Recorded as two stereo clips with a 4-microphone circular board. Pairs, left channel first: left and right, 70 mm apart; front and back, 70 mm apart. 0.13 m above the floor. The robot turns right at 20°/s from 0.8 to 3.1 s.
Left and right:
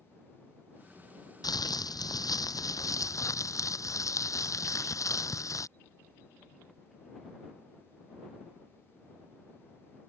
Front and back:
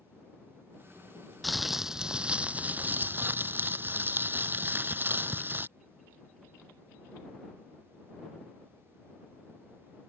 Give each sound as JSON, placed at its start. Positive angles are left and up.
{"t": 1.4, "sound": "crumpling", "azimuth_deg": 90}